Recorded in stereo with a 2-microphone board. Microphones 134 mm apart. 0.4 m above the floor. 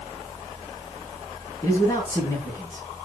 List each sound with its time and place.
1.6 s a man speaking: 20° left (ahead or behind), 2.5 m